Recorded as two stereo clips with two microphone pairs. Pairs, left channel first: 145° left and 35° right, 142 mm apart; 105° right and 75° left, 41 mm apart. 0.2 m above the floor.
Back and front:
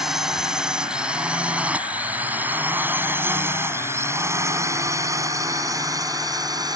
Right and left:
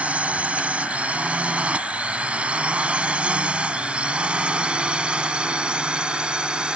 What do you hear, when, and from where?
0.0 s a drone: 55° left; by 6.8 s 20° left